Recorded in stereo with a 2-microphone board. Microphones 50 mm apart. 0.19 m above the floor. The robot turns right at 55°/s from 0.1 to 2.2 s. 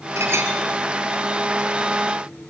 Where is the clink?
65° right (ahead or behind), 2.5 m; by 0.5 s 50° right (ahead or behind), 2.5 m.